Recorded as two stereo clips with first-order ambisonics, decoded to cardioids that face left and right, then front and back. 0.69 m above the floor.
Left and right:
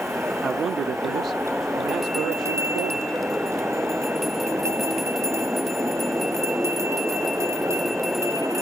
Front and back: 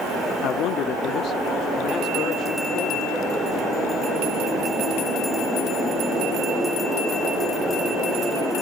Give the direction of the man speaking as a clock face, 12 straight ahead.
1 o'clock.